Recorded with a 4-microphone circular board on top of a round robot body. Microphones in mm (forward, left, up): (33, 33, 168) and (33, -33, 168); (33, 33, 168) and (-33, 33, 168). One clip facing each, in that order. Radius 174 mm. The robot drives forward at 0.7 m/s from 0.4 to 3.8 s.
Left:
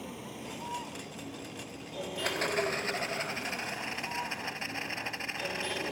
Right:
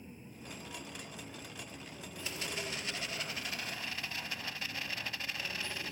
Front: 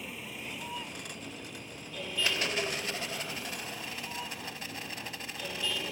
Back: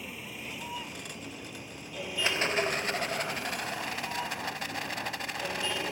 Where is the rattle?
115° left; by 5.9 s 155° left.